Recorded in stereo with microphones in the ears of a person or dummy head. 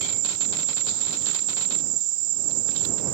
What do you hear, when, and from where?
0.0 s an insect: 30° right (ahead or behind)